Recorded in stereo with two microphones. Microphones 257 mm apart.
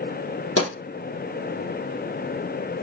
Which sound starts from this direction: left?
A pop, at 0.6 s.